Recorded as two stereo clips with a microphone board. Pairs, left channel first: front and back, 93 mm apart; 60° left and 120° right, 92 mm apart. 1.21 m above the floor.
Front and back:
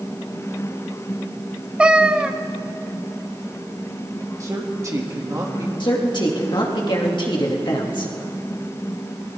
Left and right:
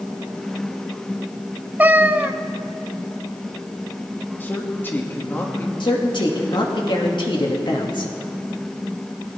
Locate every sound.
1.8 s a cat meowing: 120° right, 0.5 m
4.4 s a man speaking: 130° left, 2.5 m
5.8 s a man speaking: 30° left, 2.5 m